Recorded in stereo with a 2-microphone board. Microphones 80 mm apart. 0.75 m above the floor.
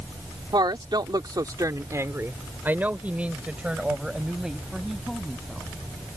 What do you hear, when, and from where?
0.5 s a woman speaking: 65° right (ahead or behind); by 5.7 s centre (ahead or behind)